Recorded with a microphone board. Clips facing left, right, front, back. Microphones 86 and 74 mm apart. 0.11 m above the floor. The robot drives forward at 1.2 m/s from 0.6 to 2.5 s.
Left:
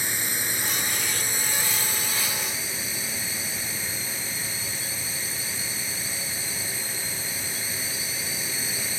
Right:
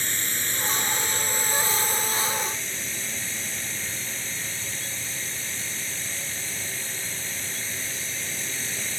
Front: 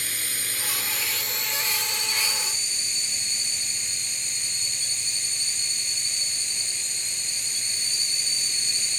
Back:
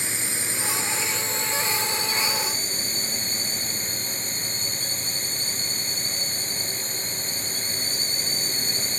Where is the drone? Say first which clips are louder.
Left 1 dB, back 3 dB; 155° left; by 9.0 s 170° left.